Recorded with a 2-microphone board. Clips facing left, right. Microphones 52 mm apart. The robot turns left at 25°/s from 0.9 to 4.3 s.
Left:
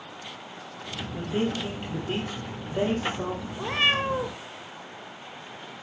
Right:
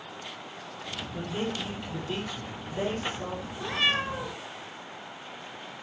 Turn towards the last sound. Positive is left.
turn(degrees=50)  # may be behind; listen again after turning